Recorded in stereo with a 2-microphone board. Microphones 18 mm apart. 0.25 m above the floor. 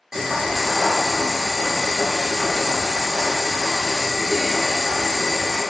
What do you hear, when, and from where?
0.1 s boiling: 30° right (ahead or behind), 1.2 m